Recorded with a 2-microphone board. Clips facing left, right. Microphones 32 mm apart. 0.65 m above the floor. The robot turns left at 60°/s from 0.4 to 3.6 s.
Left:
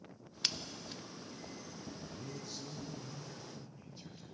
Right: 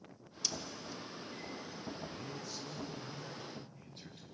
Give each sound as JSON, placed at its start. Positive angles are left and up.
{"t": 0.4, "sound": "scissors", "side_deg": 50, "distance_m": 0.5}
{"t": 2.1, "sound": "a man speaking", "azimuth_deg": 40, "distance_m": 9.0}